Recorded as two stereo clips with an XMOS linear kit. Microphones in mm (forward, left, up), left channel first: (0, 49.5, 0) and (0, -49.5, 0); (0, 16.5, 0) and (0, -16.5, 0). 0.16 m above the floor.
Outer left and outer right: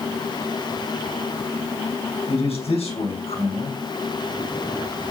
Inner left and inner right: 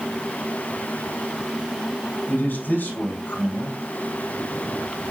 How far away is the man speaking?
About 7 m.